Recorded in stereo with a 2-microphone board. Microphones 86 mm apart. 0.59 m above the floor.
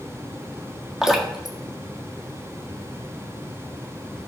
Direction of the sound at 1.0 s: 5° right (ahead or behind).